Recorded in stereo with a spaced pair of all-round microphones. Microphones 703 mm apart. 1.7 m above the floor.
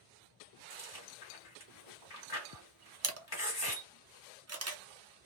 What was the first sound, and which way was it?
Chewing, 30° left (ahead or behind).